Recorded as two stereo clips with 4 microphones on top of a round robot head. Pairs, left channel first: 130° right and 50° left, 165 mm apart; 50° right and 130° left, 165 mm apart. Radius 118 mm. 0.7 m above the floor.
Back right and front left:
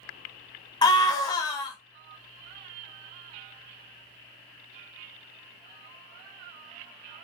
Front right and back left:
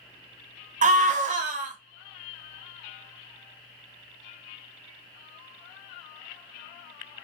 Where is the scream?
165° left, 0.8 m.